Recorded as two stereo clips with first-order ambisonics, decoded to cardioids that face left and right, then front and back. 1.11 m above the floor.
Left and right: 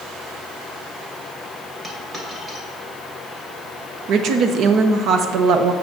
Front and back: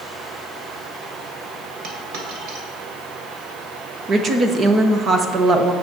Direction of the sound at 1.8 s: 160° right.